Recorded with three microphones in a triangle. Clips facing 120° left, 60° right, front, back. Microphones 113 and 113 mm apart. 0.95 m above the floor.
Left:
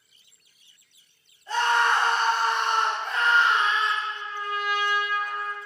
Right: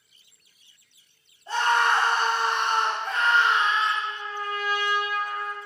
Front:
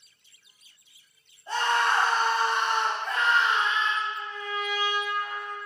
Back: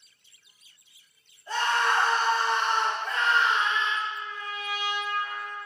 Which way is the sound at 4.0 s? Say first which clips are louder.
Right 1 dB, front 1 dB; 30° left.